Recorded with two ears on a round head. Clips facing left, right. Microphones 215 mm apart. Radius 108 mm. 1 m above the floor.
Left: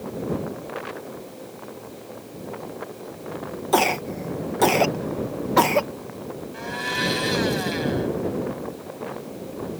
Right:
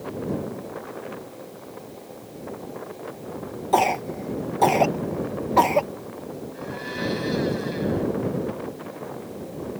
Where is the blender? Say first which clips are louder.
Left 1 dB; 75° left (ahead or behind).